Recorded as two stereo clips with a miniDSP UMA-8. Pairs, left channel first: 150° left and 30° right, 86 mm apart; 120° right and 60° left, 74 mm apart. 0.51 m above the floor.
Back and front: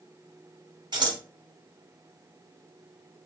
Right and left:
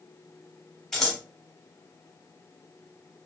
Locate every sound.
0.9 s scissors: 35° right, 1.1 m